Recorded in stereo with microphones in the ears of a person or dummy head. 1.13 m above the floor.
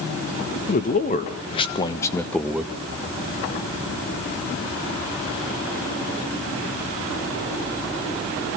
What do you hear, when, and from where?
0.7 s a man speaking: 40° left (ahead or behind), 1.4 m; by 2.7 s 10° right (ahead or behind), 0.8 m